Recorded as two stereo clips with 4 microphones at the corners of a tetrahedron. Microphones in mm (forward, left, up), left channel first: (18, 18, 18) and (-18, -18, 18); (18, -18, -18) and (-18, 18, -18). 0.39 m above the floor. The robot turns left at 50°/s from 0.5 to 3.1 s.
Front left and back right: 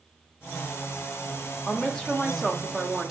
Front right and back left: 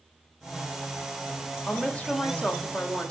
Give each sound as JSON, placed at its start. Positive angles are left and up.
{"t": 1.7, "sound": "a woman speaking", "azimuth_deg": 0, "distance_m": 1.1}